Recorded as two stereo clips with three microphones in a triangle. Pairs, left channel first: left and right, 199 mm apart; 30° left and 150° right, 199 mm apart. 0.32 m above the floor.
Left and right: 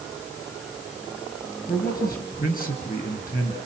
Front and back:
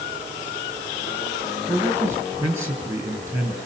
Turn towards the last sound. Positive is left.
turn(degrees=135)